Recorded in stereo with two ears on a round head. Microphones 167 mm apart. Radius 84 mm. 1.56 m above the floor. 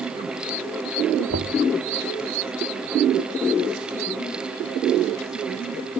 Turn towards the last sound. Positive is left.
turn(degrees=-85)